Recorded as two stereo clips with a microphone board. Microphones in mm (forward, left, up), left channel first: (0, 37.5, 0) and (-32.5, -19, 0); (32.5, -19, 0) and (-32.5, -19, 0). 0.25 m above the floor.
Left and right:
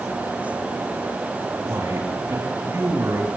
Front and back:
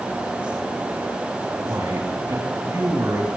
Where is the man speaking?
155° right, 4.5 m.